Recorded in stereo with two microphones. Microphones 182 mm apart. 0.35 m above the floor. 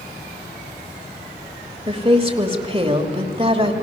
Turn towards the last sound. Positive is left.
turn(degrees=-30)  # may be behind; listen again after turning